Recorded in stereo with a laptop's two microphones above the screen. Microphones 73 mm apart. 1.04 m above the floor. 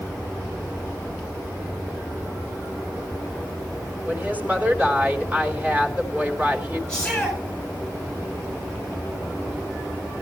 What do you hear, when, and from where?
4.0 s a woman speaking: 20° right (ahead or behind), 4 m
6.9 s a shout: 10° left (ahead or behind), 7.5 m